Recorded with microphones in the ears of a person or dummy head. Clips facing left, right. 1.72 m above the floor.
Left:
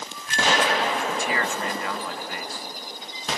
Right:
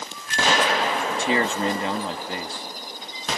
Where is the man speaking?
20° right (ahead or behind).